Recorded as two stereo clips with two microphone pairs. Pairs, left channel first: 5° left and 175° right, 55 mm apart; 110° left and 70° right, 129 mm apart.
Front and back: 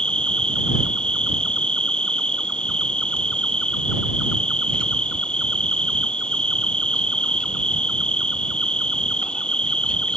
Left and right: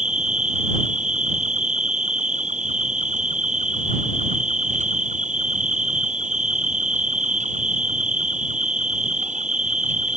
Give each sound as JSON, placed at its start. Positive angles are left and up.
{"t": 0.0, "sound": "an insect", "azimuth_deg": -65}